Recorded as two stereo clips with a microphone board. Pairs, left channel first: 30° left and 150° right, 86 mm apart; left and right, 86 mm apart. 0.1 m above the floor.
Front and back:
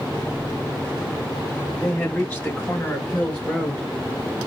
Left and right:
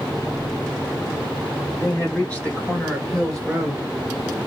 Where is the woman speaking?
65° left, 1.8 m; by 3.9 s 25° right, 1.7 m.